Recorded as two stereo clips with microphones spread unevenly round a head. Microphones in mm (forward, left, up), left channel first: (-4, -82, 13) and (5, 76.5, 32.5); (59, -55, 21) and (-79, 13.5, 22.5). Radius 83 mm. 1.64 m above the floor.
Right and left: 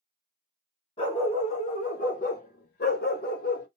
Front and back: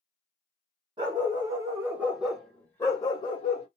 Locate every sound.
1.0 s a dog barking: 150° right, 2.5 m; by 3.7 s 60° right, 2.0 m